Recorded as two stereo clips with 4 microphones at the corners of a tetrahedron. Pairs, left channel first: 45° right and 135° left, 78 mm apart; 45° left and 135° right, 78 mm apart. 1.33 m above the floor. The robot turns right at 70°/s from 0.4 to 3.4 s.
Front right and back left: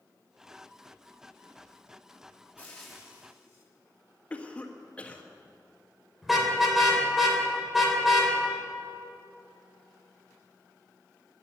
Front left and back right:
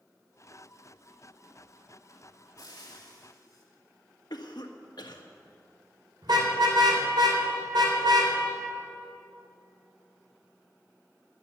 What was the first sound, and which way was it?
Frying, 20° left.